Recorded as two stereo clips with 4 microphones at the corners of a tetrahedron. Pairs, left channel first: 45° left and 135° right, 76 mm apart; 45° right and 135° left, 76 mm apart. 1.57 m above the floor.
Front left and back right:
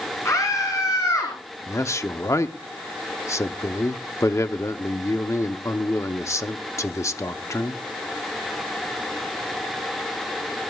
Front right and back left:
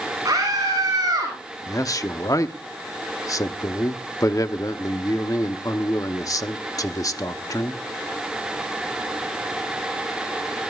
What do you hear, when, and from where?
0.2 s a scream: 95° left, 5 m; by 1.4 s 100° left, 4.5 m
1.7 s a man speaking: 5° right, 0.9 m